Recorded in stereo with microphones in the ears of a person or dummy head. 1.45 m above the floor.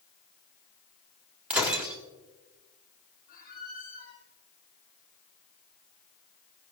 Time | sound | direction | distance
1.5 | breaking glass | 5° right (ahead or behind) | 1.4 m
3.3 | a squeak | 50° left (ahead or behind) | 5.5 m